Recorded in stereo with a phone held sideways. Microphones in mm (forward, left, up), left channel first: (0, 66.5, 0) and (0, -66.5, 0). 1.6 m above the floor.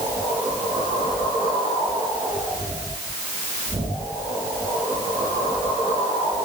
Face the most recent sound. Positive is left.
No sound to turn to.